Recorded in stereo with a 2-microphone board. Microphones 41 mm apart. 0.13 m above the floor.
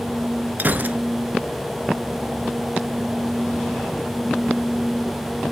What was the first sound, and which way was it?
A gunshot, 50° right (ahead or behind).